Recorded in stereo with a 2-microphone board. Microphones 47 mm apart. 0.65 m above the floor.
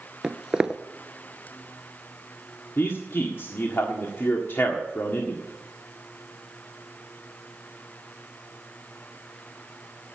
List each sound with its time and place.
0.2 s footsteps: 15° right (ahead or behind), 0.6 m
2.8 s a man speaking: 55° left (ahead or behind), 1.6 m